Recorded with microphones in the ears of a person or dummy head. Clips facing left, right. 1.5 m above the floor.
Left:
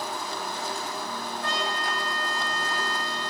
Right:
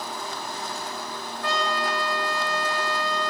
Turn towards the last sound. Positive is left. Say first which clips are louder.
# right 6 dB
turn(degrees=-85)